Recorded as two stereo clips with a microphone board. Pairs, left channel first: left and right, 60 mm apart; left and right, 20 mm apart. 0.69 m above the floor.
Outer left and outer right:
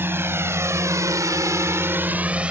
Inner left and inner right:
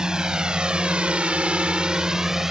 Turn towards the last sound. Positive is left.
turn(degrees=-15)  # may be behind; listen again after turning